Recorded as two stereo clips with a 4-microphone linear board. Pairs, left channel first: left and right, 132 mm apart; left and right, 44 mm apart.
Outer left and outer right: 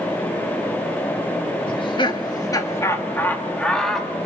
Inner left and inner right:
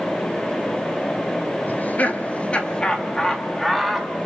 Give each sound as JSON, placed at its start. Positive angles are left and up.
{"t": 1.7, "sound": "laughter", "side_deg": 45, "distance_m": 2.5}